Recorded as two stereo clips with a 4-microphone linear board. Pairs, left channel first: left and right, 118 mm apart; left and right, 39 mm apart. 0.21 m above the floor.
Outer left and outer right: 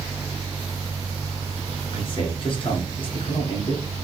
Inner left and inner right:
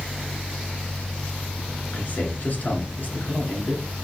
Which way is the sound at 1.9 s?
50° left (ahead or behind).